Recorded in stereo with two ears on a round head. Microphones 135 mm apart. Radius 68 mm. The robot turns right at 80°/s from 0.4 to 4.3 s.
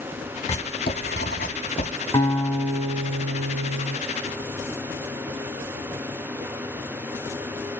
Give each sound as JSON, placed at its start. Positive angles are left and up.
{"t": 0.5, "sound": "writing", "side_deg": 35, "distance_m": 1.8}
{"t": 2.1, "sound": "a guitar", "azimuth_deg": 155, "distance_m": 1.3}